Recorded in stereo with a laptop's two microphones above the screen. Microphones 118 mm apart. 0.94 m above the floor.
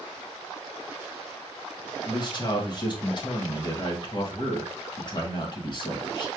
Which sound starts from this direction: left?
A man speaking, at 2.1 s.